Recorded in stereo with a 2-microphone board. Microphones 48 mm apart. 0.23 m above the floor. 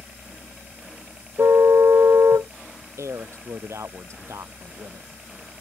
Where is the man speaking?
80° right.